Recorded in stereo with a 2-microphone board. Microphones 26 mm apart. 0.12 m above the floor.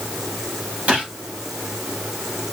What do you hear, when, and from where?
0.9 s a gunshot: 55° right (ahead or behind), 6.5 m